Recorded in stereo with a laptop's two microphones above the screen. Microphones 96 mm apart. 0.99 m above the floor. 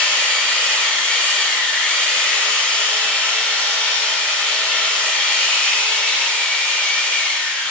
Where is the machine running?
10° left (ahead or behind), 1.6 m.